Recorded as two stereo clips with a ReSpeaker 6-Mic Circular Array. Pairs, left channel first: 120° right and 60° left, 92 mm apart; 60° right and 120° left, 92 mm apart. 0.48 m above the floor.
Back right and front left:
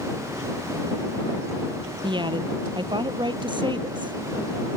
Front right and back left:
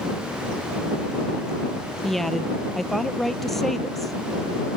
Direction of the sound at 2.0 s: 30° left.